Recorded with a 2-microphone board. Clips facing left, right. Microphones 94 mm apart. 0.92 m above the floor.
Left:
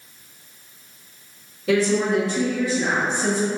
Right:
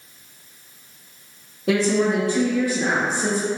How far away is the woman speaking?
About 0.9 m.